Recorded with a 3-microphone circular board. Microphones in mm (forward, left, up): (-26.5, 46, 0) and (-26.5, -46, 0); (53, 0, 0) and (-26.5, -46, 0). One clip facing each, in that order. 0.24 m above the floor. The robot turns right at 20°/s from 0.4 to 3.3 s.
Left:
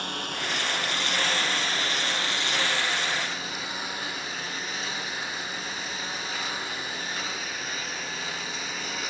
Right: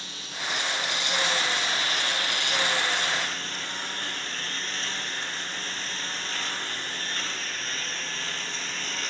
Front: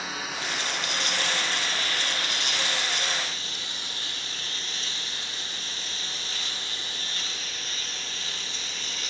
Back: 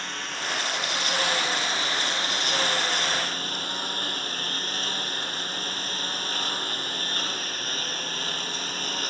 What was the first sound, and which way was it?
A lawn mower, 115° left.